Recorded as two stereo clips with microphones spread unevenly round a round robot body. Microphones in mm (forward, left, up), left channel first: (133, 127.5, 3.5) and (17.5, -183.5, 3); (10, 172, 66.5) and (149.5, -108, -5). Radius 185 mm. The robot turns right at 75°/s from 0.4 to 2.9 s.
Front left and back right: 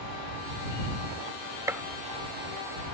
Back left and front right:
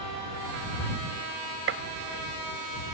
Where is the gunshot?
30° right; by 1.8 s 20° right.